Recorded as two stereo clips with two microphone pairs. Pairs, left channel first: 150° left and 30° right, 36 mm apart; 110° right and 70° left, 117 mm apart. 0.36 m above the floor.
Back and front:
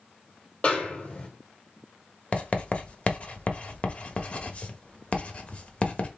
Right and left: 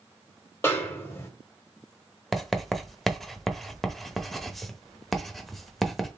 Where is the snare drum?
170° right, 1.5 m.